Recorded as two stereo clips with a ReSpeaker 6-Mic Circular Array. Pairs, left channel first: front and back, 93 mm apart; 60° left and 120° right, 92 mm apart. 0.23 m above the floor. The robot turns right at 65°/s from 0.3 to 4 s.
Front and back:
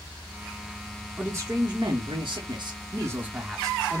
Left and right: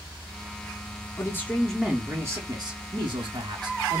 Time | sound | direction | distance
1.2 | a man speaking | 100° left | 2 m